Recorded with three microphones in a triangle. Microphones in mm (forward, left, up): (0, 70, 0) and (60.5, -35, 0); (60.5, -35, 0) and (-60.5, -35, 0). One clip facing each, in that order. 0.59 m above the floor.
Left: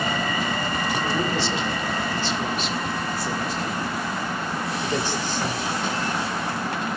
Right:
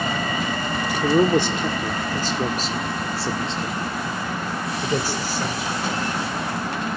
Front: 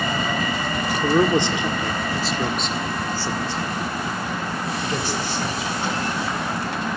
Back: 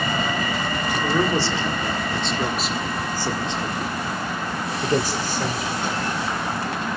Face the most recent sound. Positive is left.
turn(degrees=-150)